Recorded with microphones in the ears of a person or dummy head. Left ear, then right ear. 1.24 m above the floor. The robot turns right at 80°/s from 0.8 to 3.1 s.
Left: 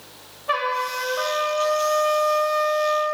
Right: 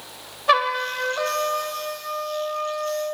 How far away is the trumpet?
About 0.6 m.